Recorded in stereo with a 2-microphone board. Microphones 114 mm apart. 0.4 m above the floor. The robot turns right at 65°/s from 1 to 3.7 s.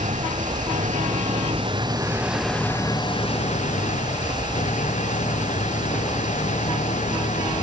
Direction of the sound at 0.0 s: 95° right.